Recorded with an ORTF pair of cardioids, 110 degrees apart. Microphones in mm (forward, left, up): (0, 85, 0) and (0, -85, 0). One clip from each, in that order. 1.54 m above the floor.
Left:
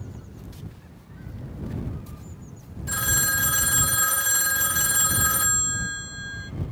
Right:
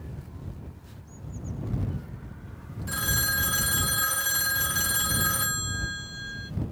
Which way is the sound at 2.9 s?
10° left.